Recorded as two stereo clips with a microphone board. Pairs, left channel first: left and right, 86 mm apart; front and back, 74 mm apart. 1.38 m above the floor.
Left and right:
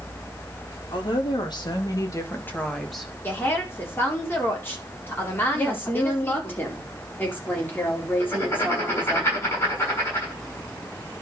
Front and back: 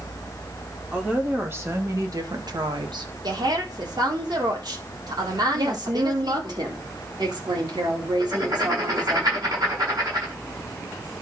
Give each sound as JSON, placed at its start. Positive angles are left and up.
{"t": 0.9, "sound": "a woman speaking", "azimuth_deg": 110, "distance_m": 3.0}
{"t": 3.2, "sound": "a woman speaking", "azimuth_deg": 155, "distance_m": 3.5}
{"t": 5.5, "sound": "a woman speaking", "azimuth_deg": 155, "distance_m": 4.0}
{"t": 8.2, "sound": "writing", "azimuth_deg": 145, "distance_m": 7.0}